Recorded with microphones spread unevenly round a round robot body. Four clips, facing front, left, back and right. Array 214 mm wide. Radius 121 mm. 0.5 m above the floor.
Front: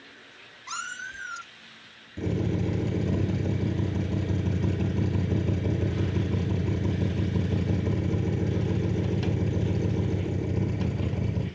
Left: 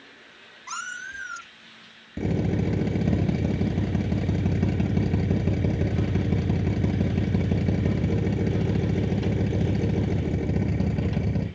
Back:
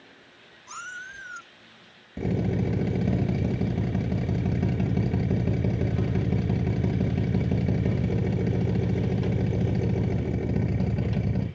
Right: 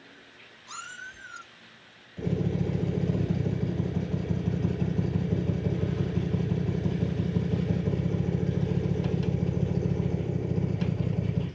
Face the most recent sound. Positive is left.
turn(degrees=110)